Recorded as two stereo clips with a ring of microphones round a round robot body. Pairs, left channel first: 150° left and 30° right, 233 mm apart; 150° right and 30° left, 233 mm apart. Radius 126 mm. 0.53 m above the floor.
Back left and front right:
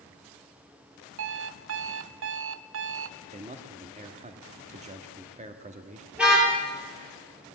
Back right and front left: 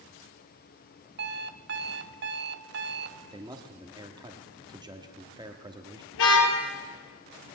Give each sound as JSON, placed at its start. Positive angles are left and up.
{"t": 1.2, "sound": "an alarm clock", "azimuth_deg": -5, "distance_m": 0.6}
{"t": 3.2, "sound": "a man speaking", "azimuth_deg": -20, "distance_m": 1.3}
{"t": 6.1, "sound": "a car horn", "azimuth_deg": -115, "distance_m": 6.5}